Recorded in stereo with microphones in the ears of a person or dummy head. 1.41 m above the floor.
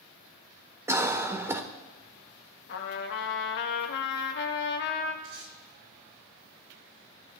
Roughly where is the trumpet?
Left.